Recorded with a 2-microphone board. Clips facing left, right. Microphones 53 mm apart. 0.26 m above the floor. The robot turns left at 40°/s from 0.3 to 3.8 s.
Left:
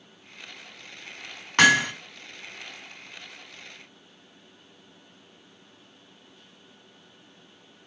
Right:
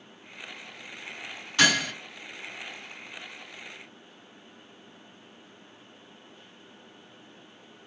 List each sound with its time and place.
1.6 s hammering: 55° left (ahead or behind), 2 m